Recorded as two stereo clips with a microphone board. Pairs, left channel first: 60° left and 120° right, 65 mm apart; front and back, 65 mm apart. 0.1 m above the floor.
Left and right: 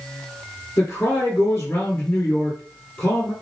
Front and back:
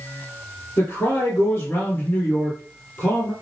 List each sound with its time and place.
0.8 s a man speaking: 30° left, 2.5 m